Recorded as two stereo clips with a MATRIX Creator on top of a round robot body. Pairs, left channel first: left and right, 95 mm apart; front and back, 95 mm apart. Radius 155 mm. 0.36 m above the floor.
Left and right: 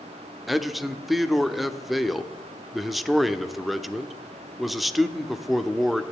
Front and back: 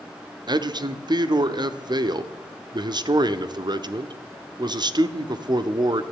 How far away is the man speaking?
About 1.2 m.